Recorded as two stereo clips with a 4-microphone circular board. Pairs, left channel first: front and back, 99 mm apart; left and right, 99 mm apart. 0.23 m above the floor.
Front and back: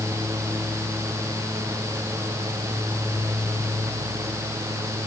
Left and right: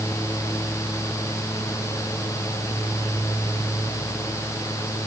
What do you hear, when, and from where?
Only background noise.